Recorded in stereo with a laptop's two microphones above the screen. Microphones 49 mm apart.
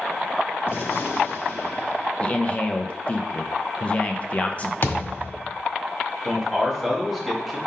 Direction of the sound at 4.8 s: 60° left (ahead or behind).